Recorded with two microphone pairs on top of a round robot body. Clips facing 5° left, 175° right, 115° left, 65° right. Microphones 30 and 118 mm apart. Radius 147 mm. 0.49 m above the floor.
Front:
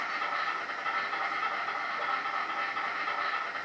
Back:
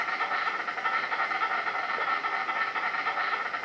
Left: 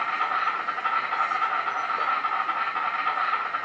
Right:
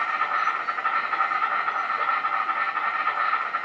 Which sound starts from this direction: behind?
An insect, at 0.0 s.